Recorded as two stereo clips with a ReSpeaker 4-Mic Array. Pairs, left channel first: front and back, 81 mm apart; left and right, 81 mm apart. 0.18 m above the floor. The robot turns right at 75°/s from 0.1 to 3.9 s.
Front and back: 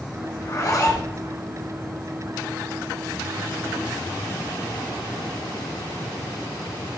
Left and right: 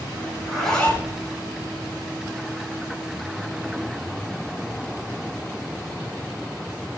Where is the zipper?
15° right, 1.8 m; by 1.1 s 40° left, 1.8 m.